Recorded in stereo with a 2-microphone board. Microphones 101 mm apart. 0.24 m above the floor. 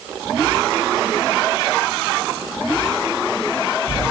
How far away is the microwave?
I don't hear a microwave.